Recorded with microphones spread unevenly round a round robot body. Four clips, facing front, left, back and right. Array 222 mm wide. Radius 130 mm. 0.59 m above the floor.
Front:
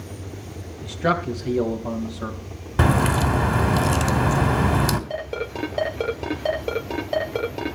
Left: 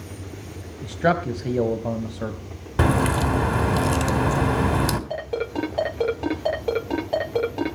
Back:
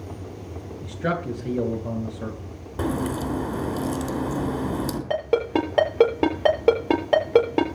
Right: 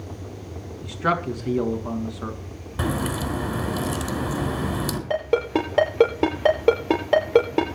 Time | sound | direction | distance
0.8 | a man speaking | 115° left | 3 m
2.8 | a crack | 25° left | 2.5 m
5.1 | a ringtone | 155° right | 6.5 m